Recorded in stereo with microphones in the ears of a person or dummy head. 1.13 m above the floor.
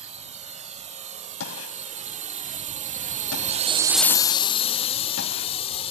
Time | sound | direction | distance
0.0 | a drone | 35° right (ahead or behind) | ?
1.4 | a gunshot | 75° left (ahead or behind) | ?